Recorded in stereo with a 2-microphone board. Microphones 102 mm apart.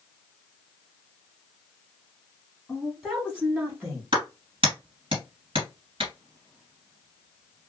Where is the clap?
60° right (ahead or behind), 2 m.